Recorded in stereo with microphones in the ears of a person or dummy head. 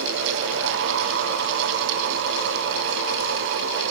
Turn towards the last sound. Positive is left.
No sound to turn to.